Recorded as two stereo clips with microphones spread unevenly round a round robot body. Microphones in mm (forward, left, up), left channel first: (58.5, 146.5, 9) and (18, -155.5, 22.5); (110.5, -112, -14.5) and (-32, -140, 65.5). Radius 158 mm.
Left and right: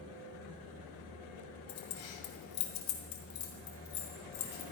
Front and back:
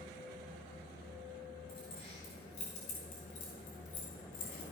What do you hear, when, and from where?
1.7 s keys jangling: 80° left, 2.5 m; by 4.6 s 45° left, 3 m